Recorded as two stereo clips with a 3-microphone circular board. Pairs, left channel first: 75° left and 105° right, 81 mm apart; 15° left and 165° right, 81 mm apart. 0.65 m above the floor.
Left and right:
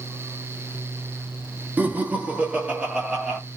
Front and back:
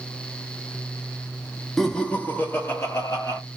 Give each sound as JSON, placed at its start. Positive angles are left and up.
{"t": 1.8, "sound": "laughter", "azimuth_deg": -65, "distance_m": 0.8}